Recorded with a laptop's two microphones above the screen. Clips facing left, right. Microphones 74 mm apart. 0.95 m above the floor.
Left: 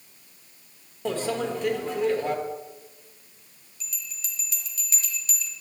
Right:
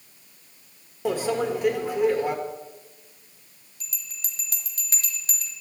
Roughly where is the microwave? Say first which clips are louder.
Right 3 dB; centre.